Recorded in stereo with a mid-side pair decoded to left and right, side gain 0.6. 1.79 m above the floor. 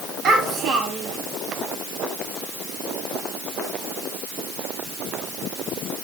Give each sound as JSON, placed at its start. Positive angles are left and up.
{"t": 0.2, "sound": "a child speaking", "azimuth_deg": -55, "distance_m": 5.0}